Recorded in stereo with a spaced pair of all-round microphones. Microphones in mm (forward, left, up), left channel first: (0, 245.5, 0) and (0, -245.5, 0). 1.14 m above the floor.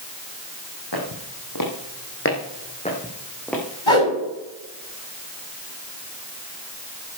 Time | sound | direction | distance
0.9 | footsteps | 55° left (ahead or behind) | 3 m
3.9 | a whoosh | 70° left (ahead or behind) | 7 m